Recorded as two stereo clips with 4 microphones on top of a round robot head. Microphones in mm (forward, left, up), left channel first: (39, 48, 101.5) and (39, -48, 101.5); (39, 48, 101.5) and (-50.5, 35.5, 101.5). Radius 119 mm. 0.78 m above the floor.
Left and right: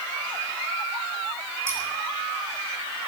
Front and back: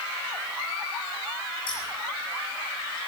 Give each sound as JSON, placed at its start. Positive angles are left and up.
{"t": 1.7, "sound": "scissors", "azimuth_deg": -25, "distance_m": 7.0}